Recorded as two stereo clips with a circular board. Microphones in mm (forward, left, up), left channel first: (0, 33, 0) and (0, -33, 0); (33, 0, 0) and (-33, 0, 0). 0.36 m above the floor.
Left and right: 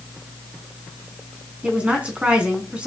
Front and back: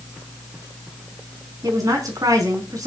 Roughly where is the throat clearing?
I don't hear throat clearing.